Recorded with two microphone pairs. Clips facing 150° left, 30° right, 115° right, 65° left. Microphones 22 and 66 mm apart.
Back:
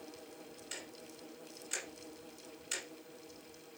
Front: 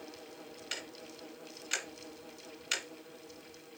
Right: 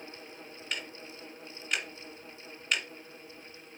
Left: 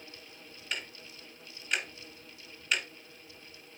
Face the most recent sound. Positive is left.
turn(degrees=-20)